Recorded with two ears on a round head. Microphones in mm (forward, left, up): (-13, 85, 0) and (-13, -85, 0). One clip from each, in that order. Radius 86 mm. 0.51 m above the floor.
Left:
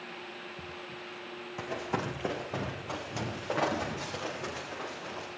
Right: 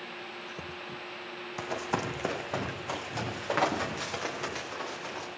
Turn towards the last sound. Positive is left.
turn(degrees=-55)  # may be behind; listen again after turning